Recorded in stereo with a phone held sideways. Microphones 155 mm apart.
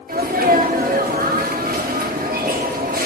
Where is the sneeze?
70° right (ahead or behind), 1.6 m.